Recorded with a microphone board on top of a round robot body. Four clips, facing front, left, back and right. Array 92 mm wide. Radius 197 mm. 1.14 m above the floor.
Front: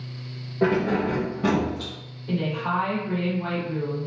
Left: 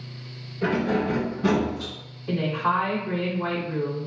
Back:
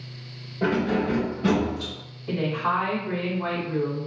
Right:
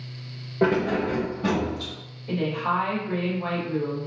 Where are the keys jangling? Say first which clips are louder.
Right 2 dB, front 2 dB; 65° right, 0.6 m; by 1.9 s 15° left, 1.5 m.